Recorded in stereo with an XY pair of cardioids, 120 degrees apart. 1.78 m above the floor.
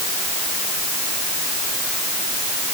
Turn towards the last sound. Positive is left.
No sound to turn to.